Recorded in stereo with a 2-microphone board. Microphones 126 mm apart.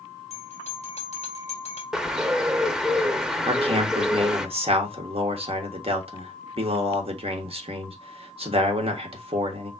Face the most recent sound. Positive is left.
turn(degrees=-50)  # may be behind; listen again after turning